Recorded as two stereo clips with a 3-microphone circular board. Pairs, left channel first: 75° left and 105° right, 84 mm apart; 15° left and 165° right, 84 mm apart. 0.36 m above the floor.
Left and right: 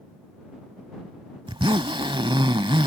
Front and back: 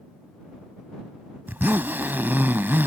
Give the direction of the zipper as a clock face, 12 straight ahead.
3 o'clock.